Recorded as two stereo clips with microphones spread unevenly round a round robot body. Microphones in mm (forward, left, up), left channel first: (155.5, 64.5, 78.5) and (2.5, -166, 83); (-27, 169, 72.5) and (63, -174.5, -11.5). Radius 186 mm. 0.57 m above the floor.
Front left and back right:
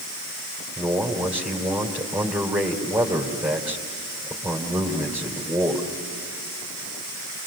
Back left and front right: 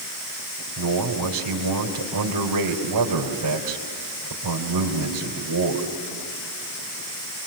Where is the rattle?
I don't hear a rattle.